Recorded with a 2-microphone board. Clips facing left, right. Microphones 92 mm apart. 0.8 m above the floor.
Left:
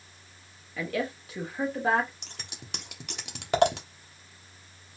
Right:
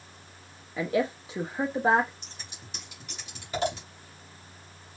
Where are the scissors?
70° left (ahead or behind), 1.2 m.